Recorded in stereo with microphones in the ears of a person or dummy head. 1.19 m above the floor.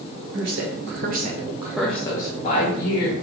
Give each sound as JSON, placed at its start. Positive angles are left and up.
{"t": 0.3, "sound": "a woman speaking", "side_deg": -70, "distance_m": 0.9}